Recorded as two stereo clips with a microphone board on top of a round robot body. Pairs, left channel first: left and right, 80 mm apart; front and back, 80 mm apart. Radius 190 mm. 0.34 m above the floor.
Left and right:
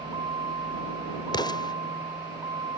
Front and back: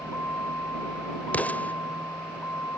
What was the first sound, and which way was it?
A vehicle, 65° right.